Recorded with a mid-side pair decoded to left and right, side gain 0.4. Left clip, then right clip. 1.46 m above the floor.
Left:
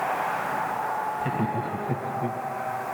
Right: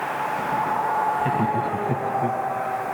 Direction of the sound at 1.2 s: 25° right.